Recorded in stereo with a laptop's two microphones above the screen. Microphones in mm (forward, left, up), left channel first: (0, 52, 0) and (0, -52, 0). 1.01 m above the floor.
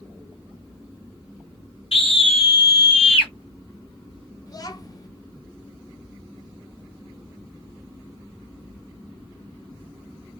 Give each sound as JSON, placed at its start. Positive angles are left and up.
{"t": 1.9, "sound": "a scream", "side_deg": 70, "distance_m": 1.7}
{"t": 4.5, "sound": "a child speaking", "side_deg": 40, "distance_m": 0.9}